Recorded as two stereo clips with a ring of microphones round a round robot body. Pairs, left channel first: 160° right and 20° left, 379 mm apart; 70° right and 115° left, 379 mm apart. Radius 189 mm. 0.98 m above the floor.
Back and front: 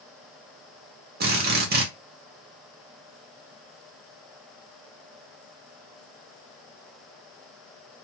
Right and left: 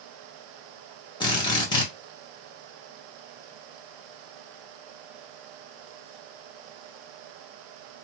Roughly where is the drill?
Ahead.